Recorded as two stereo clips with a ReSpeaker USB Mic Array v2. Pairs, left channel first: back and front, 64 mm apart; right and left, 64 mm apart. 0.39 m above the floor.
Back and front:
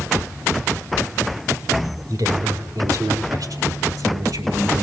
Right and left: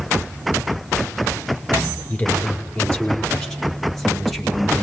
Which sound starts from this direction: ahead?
A woman speaking, at 2.1 s.